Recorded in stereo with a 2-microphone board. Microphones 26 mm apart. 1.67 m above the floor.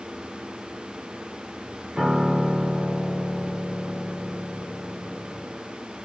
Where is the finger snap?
No finger snap in this recording.